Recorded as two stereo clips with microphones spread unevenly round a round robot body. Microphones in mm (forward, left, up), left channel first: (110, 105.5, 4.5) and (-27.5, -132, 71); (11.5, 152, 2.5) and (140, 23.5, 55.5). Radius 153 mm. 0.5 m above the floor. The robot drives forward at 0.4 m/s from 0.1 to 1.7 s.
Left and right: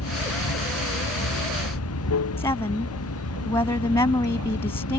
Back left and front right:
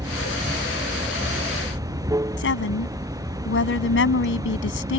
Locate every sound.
0.0 s running water: 25° left
2.4 s a woman speaking: 140° left